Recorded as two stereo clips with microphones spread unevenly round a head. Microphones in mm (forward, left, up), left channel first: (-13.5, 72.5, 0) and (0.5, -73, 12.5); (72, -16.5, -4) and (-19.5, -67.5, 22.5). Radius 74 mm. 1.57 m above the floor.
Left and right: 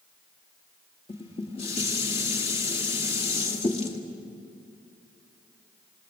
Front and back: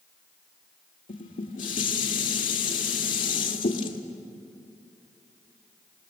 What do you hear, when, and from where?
1.1 s dishes clattering: 40° left, 1.8 m